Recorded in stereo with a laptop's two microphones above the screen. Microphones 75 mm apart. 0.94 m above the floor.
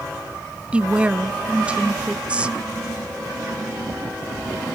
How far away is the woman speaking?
About 0.8 m.